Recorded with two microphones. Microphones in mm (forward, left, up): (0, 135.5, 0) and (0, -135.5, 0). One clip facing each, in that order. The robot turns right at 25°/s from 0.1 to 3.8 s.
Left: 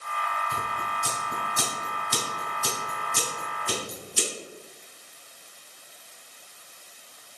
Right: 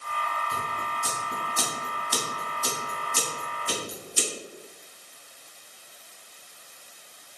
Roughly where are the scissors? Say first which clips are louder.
Even; centre.